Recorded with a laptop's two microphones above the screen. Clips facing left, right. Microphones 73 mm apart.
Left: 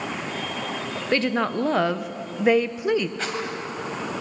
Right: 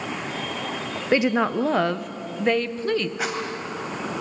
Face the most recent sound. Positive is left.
turn(degrees=-10)  # may be behind; listen again after turning